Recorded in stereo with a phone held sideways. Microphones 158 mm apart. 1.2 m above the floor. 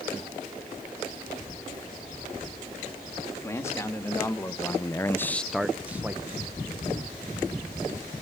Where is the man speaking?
15° left (ahead or behind), 3 m; by 6.4 s 15° right (ahead or behind), 1.6 m.